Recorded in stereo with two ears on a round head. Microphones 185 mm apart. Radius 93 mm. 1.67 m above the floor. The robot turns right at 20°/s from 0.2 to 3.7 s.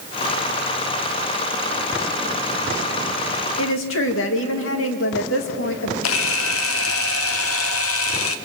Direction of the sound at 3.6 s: 75° left (ahead or behind).